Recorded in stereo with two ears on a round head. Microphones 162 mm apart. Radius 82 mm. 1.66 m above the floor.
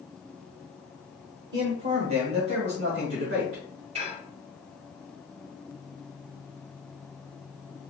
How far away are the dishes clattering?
About 1.3 m.